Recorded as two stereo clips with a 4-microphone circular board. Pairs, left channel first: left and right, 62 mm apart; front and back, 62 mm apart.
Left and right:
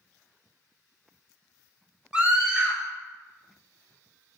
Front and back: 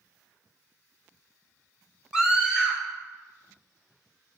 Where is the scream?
125° right, 1.2 m.